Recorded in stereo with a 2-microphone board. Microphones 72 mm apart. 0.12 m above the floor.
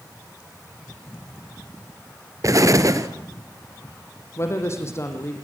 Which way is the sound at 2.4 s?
50° right (ahead or behind).